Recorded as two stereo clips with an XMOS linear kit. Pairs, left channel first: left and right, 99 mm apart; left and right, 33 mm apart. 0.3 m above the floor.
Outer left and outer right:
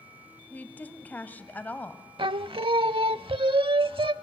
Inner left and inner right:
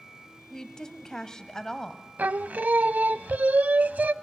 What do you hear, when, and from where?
0.5 s a woman speaking: 20° left (ahead or behind), 1.4 m
2.2 s singing: 65° right (ahead or behind), 0.5 m